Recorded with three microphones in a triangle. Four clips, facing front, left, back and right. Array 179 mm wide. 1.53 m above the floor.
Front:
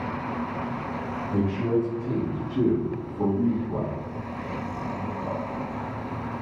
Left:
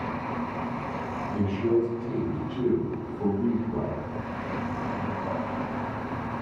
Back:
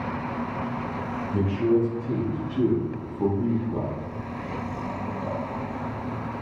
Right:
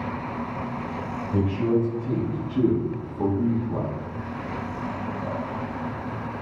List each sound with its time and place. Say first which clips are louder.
1.3 s a man speaking: right 2 dB, back 2 dB; 50° right, 3.5 m; by 4.0 s 55° right, 5 m